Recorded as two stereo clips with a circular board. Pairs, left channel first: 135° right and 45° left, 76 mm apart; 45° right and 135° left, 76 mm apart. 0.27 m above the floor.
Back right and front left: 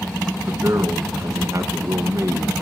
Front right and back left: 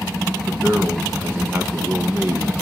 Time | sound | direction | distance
0.5 | a man speaking | 75° left | 2 m